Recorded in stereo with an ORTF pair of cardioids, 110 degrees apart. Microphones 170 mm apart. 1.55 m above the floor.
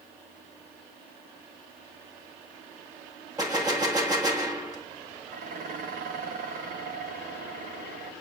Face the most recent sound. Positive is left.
turn(degrees=-60)